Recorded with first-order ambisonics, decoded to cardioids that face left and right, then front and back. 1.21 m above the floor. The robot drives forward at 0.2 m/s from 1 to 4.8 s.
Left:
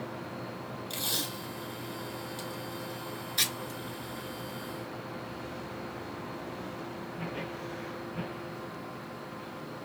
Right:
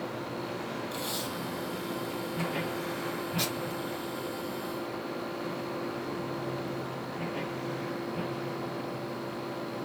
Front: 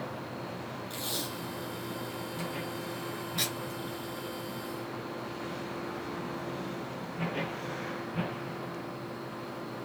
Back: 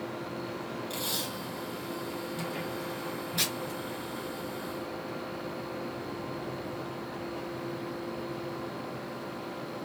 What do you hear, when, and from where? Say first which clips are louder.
0.9 s tape being pulled: left 5 dB, back 2 dB; 110° left, 4 m; by 3.8 s 115° left, 4 m